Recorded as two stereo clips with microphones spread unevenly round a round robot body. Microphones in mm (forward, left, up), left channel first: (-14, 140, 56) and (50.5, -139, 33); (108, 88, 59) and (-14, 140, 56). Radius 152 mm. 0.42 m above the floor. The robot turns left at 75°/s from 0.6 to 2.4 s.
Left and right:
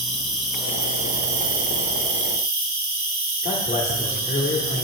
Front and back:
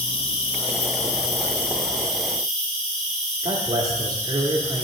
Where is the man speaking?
155° left, 1.2 m.